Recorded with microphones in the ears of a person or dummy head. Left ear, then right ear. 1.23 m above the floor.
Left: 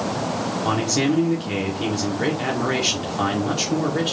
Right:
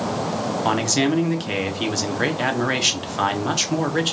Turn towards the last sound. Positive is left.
turn(degrees=-45)  # may be behind; listen again after turning